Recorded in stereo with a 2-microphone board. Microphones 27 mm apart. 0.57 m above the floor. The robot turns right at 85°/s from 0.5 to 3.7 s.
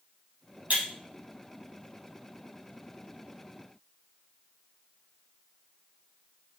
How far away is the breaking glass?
About 4.5 m.